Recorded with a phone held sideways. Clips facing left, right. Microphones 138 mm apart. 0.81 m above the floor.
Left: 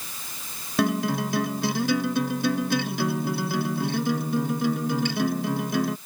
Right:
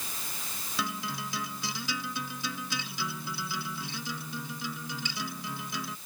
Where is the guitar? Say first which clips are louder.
Left 13 dB; 60° left (ahead or behind).